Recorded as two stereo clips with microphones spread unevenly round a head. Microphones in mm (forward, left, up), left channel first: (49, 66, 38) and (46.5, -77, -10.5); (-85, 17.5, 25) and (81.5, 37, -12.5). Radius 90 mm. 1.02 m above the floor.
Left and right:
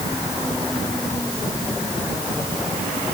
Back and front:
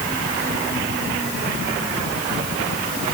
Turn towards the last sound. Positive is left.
No sound to turn to.